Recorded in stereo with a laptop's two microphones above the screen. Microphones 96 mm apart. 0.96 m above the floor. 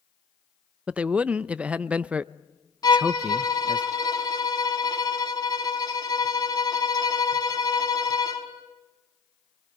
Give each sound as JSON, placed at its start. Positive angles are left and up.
{"t": 0.9, "sound": "a man speaking", "side_deg": -15, "distance_m": 0.5}
{"t": 2.8, "sound": "a violin", "side_deg": 40, "distance_m": 4.5}